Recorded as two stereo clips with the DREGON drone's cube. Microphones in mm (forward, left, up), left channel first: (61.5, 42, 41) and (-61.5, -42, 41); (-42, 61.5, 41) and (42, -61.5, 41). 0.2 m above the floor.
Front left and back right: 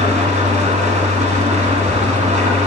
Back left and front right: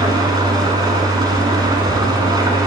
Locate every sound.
0.0 s an engine running: 115° right, 0.9 m